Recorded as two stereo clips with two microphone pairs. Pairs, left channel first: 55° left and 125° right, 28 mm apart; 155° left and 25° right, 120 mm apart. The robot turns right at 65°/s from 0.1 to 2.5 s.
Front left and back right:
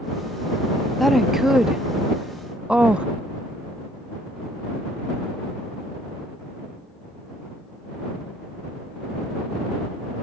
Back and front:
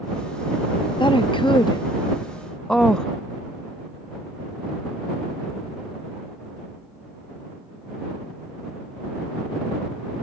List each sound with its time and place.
1.0 s a woman speaking: 140° left; by 3.1 s 125° right